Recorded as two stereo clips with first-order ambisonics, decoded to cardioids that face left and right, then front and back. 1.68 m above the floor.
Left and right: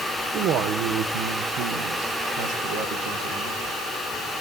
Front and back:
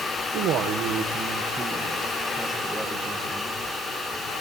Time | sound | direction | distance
0.3 | a man speaking | 140° right | 1.2 m